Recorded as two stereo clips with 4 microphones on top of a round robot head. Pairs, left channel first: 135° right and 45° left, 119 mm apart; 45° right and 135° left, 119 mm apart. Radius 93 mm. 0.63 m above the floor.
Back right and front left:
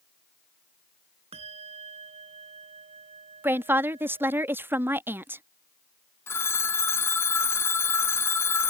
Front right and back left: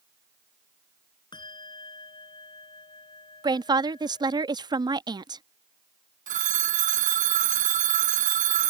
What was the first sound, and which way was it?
A bell, 5° left.